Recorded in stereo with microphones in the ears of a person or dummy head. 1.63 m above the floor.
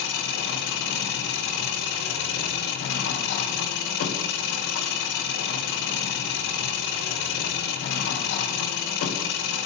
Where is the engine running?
55° left (ahead or behind), 0.9 m.